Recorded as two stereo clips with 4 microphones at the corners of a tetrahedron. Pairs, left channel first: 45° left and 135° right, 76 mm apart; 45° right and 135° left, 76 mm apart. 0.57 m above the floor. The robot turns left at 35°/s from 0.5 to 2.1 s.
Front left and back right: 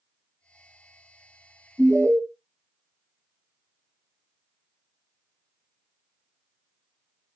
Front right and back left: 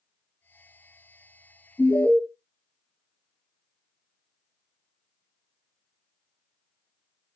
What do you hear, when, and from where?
1.8 s an alarm: 75° right, 1.3 m; by 2.2 s 85° right, 1.3 m